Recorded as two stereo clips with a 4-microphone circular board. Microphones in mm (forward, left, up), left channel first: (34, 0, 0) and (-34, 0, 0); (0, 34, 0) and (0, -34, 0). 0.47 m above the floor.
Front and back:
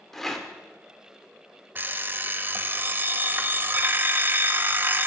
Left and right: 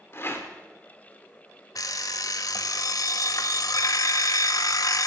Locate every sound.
0.1 s a rattle: 80° left, 1.4 m
1.8 s an alarm clock: 120° left, 0.6 m